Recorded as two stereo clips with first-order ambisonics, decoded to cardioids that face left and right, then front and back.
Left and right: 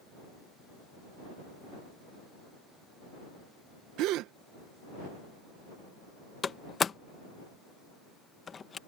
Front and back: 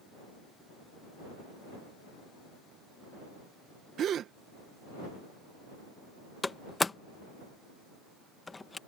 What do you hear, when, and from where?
4.0 s a gasp: 125° right
6.4 s a door slam: 65° left